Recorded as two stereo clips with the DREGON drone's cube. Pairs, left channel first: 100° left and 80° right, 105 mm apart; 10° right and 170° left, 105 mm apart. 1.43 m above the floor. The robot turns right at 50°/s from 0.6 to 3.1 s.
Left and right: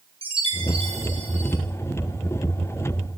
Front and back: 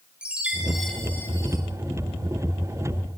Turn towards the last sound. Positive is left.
turn(degrees=15)